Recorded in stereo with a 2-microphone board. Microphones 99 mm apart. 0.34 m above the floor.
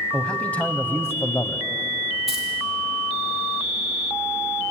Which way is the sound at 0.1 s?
10° left (ahead or behind).